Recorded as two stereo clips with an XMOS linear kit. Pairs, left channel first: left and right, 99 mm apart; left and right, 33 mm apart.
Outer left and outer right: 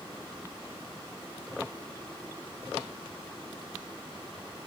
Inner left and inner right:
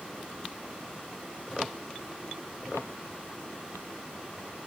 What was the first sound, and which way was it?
Only background noise.